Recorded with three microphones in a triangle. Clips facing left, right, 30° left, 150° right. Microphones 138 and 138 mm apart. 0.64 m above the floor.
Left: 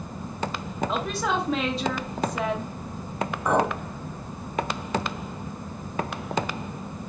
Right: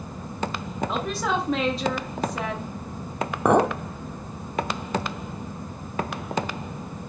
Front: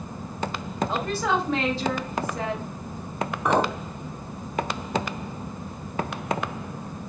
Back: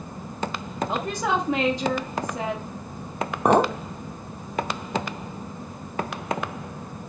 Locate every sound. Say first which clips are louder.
0.9 s a woman speaking: right 1 dB, even; straight behind, 0.8 m
3.5 s a clink: right 4 dB, back 4 dB; 105° right, 0.6 m